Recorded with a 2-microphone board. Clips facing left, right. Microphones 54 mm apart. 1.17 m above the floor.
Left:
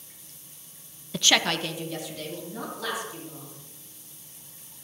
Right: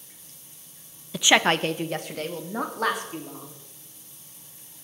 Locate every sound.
1.1 s a woman speaking: centre (ahead or behind), 0.5 m; by 3.5 s 55° right (ahead or behind), 3.5 m